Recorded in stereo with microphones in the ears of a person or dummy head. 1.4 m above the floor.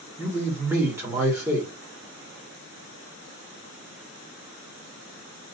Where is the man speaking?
15° right (ahead or behind), 1.7 m.